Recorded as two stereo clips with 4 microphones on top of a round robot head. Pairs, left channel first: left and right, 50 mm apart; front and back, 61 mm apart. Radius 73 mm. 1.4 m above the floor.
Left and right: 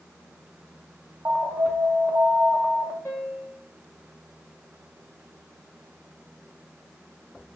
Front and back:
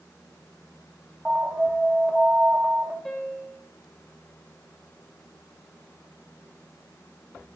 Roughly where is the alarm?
Right.